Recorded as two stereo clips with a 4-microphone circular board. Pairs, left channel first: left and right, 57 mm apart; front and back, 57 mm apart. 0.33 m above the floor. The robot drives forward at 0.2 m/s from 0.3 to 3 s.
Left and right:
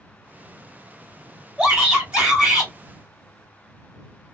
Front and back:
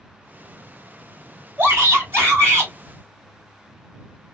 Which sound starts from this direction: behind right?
A shout, at 1.6 s.